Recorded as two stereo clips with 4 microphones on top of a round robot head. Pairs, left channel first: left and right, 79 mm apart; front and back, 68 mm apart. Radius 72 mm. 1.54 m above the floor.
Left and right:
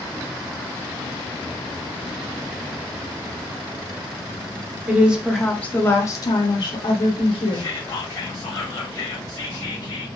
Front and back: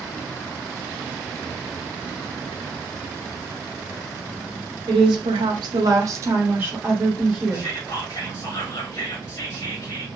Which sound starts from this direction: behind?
A woman speaking, at 4.9 s.